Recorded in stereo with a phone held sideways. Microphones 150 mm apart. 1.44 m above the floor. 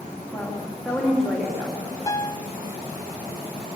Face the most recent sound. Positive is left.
turn(degrees=20)  # may be behind; listen again after turning